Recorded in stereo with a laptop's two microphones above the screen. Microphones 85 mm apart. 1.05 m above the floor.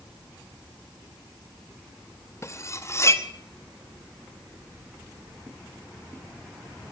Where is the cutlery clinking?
35° left (ahead or behind), 0.7 m.